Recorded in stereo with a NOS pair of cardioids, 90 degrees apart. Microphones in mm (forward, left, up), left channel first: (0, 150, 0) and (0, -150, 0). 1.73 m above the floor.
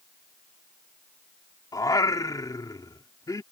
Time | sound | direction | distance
1.7 | singing | 15° left | ?